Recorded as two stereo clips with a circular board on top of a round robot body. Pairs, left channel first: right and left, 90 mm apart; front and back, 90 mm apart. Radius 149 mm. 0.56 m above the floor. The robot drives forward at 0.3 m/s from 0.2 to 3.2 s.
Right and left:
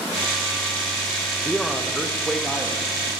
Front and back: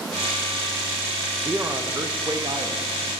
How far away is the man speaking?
About 0.7 m.